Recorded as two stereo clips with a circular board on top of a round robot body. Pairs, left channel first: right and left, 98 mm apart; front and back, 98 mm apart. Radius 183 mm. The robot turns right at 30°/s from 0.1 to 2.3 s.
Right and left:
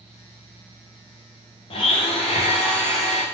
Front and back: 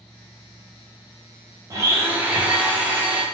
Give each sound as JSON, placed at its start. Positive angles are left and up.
{"t": 1.7, "sound": "a blender", "azimuth_deg": -120, "distance_m": 0.7}